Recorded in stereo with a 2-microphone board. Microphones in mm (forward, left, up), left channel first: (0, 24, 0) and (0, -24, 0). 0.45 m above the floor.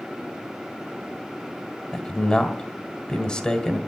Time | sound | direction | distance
1.9 | a man speaking | 20° left (ahead or behind) | 1.5 m